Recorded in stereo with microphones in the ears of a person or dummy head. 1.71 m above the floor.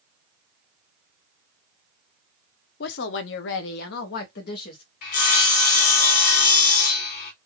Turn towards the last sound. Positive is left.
turn(degrees=55)  # may be behind; listen again after turning